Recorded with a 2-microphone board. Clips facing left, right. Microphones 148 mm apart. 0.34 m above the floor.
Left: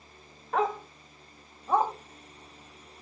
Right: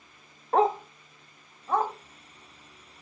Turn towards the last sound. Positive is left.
turn(degrees=15)  # may be behind; listen again after turning